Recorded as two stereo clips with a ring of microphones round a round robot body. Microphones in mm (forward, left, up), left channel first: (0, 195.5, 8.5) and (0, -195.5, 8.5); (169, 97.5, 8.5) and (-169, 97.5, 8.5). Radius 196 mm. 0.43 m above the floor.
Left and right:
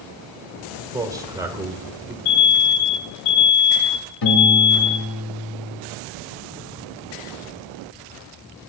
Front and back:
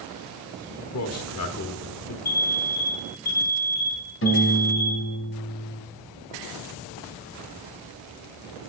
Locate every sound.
0.9 s a man speaking: 10° right, 1.0 m
2.2 s an alarm: 65° left, 2.5 m
4.2 s a piano: 50° left, 1.6 m